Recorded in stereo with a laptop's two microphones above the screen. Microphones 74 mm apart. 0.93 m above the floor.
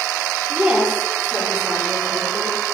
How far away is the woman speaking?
About 2.5 m.